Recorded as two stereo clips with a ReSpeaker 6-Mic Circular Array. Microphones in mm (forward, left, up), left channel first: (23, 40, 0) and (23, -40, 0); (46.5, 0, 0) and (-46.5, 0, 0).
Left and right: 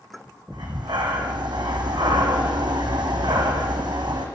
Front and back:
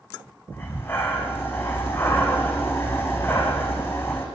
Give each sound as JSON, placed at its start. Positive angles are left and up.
{"t": 0.5, "sound": "breathing", "azimuth_deg": -65, "distance_m": 1.6}